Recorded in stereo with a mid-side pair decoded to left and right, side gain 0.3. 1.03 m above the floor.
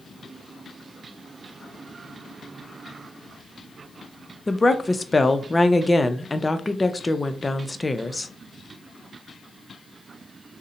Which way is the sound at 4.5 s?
25° left.